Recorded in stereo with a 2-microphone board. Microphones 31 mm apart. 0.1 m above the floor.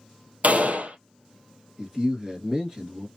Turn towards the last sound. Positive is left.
turn(degrees=-25)  # may be behind; listen again after turning